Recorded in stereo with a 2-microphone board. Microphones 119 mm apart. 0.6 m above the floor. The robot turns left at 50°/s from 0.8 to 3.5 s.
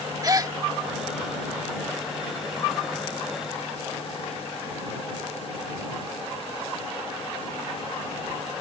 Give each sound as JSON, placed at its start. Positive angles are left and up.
{"t": 0.2, "sound": "a gasp", "side_deg": -30}